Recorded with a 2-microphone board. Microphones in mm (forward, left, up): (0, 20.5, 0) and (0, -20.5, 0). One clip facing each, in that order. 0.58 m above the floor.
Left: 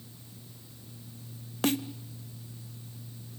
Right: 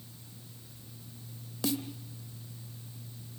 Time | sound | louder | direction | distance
1.6 | a snare drum | left 5 dB | 50° left (ahead or behind) | 1.1 m